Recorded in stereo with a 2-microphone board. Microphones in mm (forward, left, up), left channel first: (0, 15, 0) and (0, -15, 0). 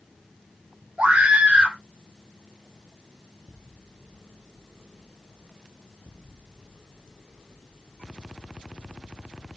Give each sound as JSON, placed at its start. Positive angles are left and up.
{"t": 1.0, "sound": "a scream", "side_deg": -50, "distance_m": 2.5}